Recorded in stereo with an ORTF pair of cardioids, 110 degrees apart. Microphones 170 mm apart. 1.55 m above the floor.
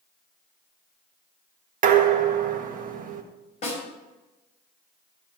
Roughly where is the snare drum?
Ahead left.